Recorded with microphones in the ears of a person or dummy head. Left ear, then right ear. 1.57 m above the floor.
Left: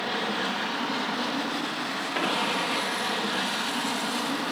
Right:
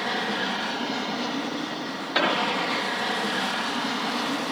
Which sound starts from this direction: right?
An explosion, at 2.1 s.